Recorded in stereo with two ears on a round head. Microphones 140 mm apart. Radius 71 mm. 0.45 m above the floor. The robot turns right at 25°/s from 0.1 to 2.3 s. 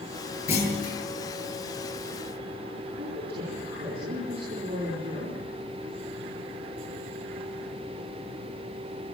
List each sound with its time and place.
0.5 s a clunk: 45° left (ahead or behind), 9 m; by 1.0 s 35° left (ahead or behind), 9 m
3.0 s a woman speaking: 80° right, 7.5 m